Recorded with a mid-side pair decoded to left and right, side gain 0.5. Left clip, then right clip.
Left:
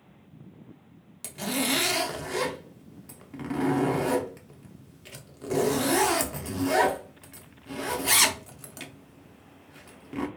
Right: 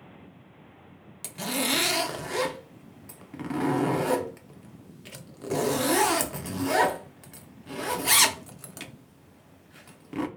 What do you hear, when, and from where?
1.2 s a zipper: 15° right, 0.5 m